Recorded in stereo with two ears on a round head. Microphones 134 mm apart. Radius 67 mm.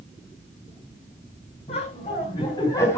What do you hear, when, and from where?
1.7 s laughter: 40° left (ahead or behind), 4.5 m; by 3.0 s 15° left (ahead or behind), 3 m